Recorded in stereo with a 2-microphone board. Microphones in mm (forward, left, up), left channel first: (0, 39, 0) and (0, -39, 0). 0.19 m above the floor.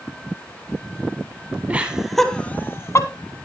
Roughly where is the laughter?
Centre.